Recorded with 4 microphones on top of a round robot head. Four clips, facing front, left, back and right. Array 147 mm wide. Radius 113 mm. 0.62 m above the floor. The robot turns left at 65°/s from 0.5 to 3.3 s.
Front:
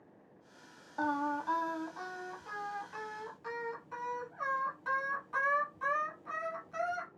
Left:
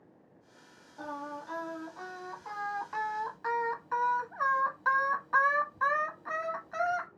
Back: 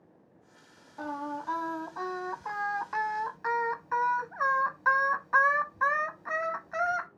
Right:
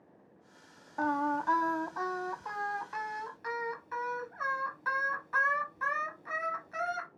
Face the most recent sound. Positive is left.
turn(degrees=150)